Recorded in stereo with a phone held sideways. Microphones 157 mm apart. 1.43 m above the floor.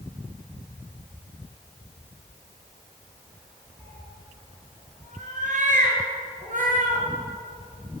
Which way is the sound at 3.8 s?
45° right (ahead or behind).